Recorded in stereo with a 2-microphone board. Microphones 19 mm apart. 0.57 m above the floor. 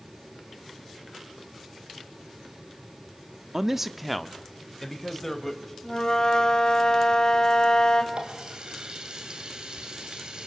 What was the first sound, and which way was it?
A man speaking, 25° right (ahead or behind).